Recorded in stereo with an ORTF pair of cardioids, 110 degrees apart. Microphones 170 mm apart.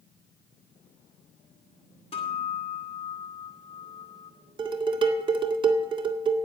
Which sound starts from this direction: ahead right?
Dishes clattering, at 4.6 s.